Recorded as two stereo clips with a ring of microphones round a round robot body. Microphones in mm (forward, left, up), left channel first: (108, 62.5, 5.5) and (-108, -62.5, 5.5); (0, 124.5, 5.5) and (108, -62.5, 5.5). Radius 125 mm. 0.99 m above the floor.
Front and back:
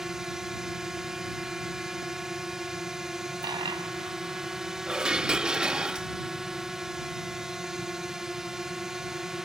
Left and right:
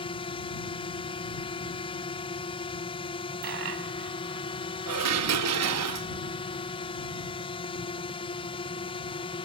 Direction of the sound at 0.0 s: 125° left.